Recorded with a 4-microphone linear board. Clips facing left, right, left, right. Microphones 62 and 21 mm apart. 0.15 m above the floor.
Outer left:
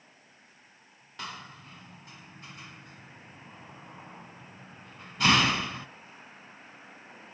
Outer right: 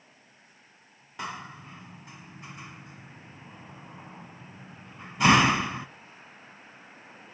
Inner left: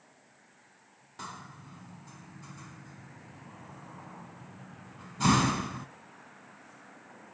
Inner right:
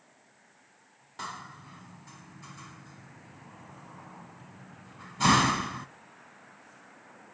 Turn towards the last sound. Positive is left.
turn(degrees=-15)  # may be behind; listen again after turning